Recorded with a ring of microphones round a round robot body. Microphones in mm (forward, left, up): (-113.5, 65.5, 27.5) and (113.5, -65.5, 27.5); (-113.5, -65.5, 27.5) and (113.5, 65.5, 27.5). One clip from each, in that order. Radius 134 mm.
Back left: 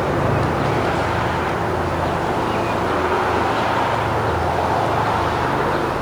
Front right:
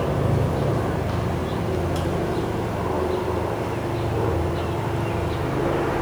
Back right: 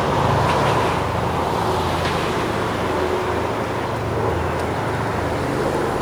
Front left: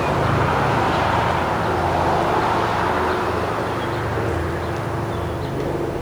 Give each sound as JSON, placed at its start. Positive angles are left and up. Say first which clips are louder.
{"t": 0.0, "sound": "an aircraft", "louder": "back left 5 dB, back right 1 dB", "azimuth_deg": -135}